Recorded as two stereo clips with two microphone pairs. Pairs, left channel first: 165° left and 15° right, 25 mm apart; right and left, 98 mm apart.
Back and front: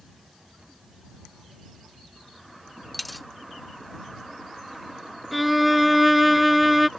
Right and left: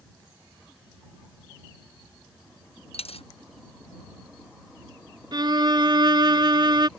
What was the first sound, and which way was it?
A dropped coin, 105° right.